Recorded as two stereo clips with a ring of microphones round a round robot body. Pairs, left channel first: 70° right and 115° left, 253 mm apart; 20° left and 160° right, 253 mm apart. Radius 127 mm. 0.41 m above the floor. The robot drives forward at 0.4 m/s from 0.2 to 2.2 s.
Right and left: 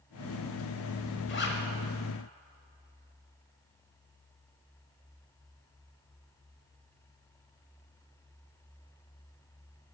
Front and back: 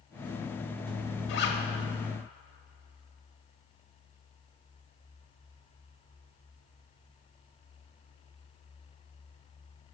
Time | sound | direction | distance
1.3 | a zipper | 20° right | 0.9 m